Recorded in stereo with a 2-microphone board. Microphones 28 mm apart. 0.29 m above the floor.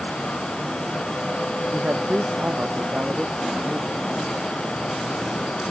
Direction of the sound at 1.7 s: 60° right (ahead or behind).